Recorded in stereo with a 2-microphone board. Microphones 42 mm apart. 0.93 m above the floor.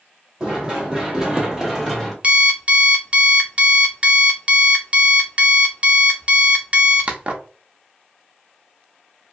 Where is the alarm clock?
30° right (ahead or behind), 0.5 m.